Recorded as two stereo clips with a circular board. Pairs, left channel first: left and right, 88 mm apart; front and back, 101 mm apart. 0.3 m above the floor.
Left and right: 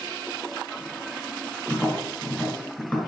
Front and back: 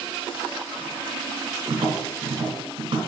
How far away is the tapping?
About 1.7 m.